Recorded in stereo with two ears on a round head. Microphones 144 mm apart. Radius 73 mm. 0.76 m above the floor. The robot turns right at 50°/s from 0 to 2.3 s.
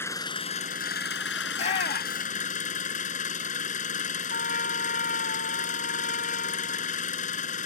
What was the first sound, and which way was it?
An engine running, 15° left.